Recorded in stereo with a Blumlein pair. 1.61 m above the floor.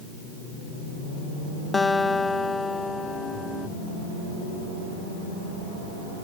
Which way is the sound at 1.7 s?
10° left.